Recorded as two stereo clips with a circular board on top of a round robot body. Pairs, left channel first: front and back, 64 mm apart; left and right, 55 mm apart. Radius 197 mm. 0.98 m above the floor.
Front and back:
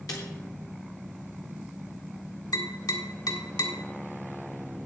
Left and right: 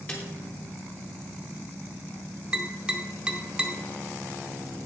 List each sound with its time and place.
0.1 s a snare drum: 25° left, 0.7 m
2.5 s tapping: 20° right, 1.8 m